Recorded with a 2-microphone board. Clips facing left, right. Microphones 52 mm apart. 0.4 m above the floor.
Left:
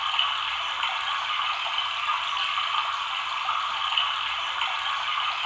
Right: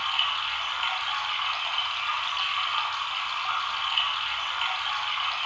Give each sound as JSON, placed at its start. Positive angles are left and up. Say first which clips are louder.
{"t": 0.0, "sound": "running water", "louder": "left 1 dB", "side_deg": 15, "distance_m": 1.1}